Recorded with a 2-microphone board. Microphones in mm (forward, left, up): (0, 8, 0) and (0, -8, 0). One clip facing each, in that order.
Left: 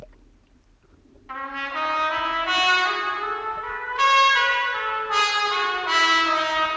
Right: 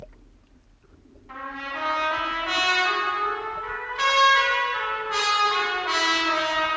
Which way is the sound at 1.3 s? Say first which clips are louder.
Left 4 dB; 40° left (ahead or behind).